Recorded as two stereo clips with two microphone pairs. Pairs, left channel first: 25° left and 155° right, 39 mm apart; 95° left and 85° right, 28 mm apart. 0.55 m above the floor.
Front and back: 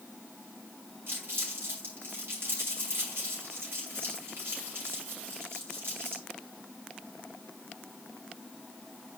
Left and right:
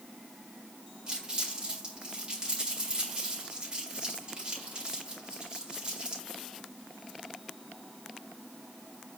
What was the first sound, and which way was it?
Crumpling, 145° right.